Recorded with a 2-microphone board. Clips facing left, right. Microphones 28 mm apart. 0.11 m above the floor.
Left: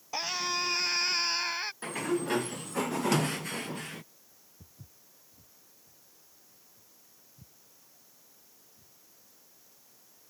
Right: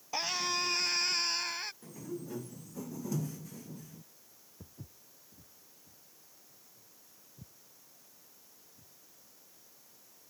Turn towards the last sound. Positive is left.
turn(degrees=-45)  # may be behind; listen again after turning